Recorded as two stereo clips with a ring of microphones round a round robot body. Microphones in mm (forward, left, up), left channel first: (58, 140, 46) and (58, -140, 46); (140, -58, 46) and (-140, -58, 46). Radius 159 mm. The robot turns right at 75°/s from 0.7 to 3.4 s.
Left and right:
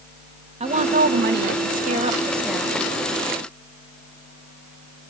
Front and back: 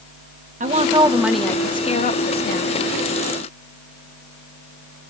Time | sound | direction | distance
0.6 | a woman speaking | 140° right | 1.3 m